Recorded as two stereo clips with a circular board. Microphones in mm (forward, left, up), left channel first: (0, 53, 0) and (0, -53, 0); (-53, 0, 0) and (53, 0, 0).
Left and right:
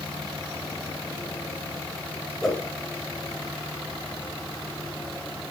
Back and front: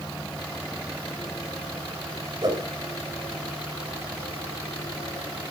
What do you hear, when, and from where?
2.4 s a whoosh: 5° left, 1.4 m